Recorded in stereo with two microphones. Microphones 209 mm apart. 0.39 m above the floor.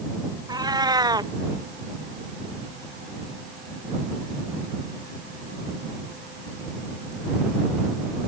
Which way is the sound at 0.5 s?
20° right (ahead or behind).